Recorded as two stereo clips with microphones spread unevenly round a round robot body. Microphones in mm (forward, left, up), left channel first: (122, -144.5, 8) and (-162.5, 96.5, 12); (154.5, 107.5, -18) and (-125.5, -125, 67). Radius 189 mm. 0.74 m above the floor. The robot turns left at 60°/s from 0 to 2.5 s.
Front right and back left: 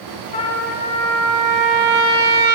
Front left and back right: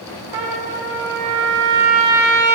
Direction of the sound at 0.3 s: 110° right.